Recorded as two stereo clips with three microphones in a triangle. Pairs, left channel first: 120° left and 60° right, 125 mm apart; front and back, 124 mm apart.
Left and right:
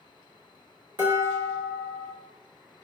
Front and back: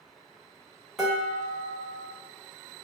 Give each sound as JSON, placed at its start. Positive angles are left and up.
{"t": 1.0, "sound": "dishes clattering", "azimuth_deg": -95, "distance_m": 1.4}